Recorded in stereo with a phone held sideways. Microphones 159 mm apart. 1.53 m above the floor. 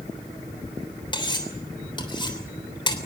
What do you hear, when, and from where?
1.1 s cutlery clinking: 30° left (ahead or behind), 3 m